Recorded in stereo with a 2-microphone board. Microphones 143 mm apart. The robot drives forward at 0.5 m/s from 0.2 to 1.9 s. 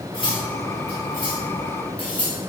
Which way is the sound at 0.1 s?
40° left (ahead or behind).